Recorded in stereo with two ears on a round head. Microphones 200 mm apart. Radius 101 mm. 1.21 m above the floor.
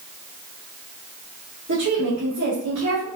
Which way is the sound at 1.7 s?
55° right (ahead or behind).